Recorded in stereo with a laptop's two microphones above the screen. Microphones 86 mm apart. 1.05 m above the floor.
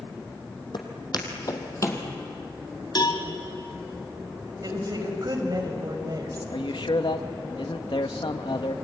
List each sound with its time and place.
0.7 s footsteps: 60° left (ahead or behind), 2.5 m; by 2.0 s 30° left (ahead or behind), 2 m
3.0 s a cowbell: 55° left (ahead or behind), 1.8 m
4.6 s a woman speaking: 50° right (ahead or behind), 5 m
6.5 s a man speaking: 75° left (ahead or behind), 1.4 m